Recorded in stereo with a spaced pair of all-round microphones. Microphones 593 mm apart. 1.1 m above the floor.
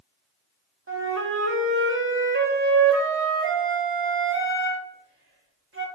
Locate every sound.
0.9 s a flute: 25° right (ahead or behind), 0.5 m